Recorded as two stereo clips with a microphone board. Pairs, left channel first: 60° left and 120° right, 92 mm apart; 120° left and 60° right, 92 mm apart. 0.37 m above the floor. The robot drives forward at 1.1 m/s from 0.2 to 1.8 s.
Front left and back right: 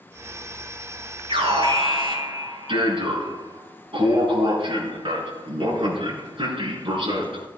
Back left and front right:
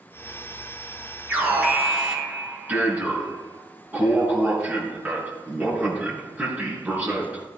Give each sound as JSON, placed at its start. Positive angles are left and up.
{"t": 1.3, "sound": "an alarm", "azimuth_deg": -130, "distance_m": 5.5}